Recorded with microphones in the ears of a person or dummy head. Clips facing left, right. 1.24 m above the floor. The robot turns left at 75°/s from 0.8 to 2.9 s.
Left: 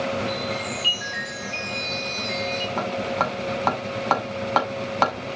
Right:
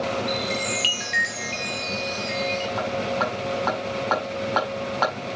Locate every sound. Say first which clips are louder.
0.3 s a chime: right 1 dB; 65° right, 2.5 m; by 2.7 s 155° left, 2.5 m
2.8 s hammering: left 1 dB; 50° left (ahead or behind), 5 m; by 5.1 s 60° left (ahead or behind), 5 m